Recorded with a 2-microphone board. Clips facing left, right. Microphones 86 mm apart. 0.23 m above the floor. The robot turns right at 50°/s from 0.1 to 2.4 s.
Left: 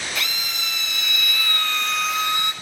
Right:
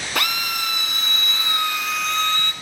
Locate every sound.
0.1 s a drill: 95° right, 1.3 m; by 2.5 s 20° left, 1.3 m